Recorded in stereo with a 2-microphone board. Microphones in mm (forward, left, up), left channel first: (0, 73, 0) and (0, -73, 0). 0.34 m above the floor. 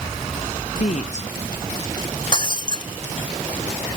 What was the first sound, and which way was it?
A woman speaking, 50° left (ahead or behind).